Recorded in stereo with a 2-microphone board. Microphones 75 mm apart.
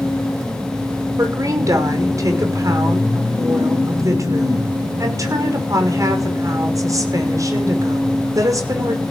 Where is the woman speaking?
45° right (ahead or behind), 6 m.